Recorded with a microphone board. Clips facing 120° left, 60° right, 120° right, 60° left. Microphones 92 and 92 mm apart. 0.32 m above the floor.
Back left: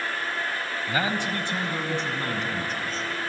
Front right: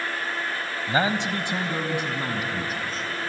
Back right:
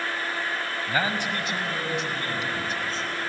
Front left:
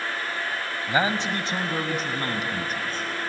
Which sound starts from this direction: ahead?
A man speaking, at 0.9 s.